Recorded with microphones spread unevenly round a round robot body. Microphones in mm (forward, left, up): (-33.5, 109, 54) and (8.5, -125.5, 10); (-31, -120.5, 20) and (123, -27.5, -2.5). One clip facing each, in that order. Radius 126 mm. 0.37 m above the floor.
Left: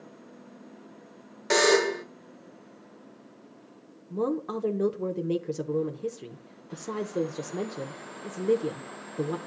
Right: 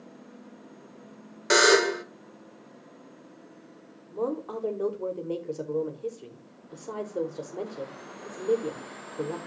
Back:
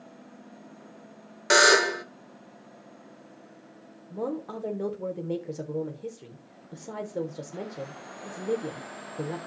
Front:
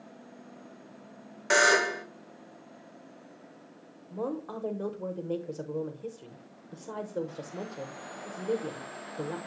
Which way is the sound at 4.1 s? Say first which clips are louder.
Left 2 dB, back 2 dB; 135° left.